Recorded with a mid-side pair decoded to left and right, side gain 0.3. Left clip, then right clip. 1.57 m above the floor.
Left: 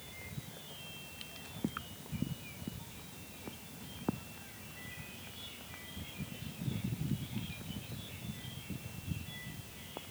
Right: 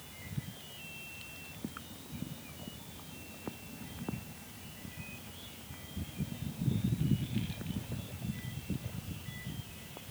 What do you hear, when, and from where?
Only background noise.